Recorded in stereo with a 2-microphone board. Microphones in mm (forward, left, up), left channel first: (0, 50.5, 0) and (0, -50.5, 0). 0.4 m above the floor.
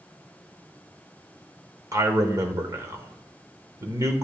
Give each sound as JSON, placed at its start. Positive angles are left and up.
{"t": 1.9, "sound": "a man speaking", "side_deg": -30, "distance_m": 1.0}